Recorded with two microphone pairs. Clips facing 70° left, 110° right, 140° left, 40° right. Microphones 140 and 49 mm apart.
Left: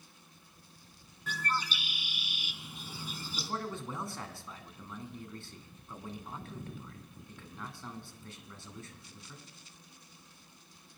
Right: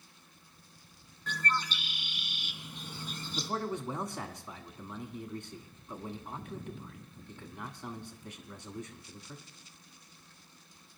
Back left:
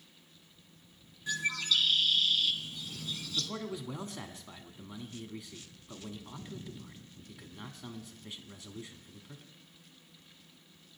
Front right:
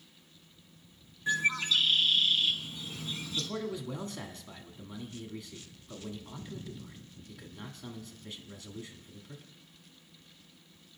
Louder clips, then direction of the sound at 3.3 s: Right 4 dB, front right 2 dB; 155° right.